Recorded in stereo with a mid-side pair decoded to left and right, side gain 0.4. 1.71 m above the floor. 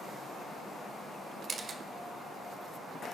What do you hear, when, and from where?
1.5 s a camera shutter: 45° right, 1.3 m